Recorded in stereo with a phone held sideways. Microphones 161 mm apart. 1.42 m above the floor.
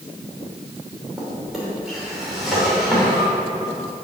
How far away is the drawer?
About 2.5 m.